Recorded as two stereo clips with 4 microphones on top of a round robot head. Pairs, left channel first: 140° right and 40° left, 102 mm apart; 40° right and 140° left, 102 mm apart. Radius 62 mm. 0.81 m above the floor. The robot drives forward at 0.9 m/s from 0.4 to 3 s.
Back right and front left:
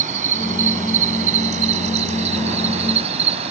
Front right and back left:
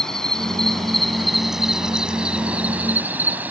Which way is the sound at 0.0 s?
45° left.